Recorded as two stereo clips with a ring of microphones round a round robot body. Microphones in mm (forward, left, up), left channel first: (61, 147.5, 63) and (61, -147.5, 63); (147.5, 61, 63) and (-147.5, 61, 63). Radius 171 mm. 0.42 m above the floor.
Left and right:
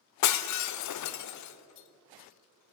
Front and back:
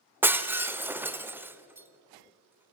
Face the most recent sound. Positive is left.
turn(degrees=95)